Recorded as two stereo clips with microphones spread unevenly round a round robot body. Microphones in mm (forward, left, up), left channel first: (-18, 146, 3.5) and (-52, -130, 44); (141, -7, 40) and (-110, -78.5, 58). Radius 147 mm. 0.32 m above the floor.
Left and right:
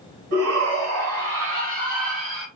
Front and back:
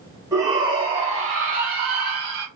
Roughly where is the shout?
Right.